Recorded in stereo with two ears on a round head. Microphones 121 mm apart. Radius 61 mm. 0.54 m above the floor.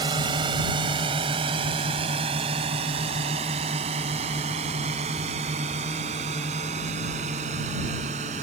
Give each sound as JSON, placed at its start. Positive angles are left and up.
{"t": 0.0, "sound": "a drone", "side_deg": -30}